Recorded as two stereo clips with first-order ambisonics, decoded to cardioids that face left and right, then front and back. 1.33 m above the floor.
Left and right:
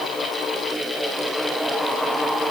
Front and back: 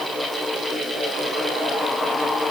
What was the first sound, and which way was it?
Only background noise.